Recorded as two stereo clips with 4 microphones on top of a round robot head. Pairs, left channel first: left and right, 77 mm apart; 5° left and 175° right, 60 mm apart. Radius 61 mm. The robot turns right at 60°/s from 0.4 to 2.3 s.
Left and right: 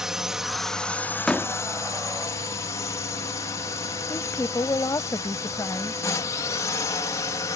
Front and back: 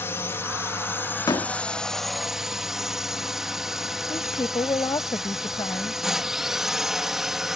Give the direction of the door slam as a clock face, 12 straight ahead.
12 o'clock.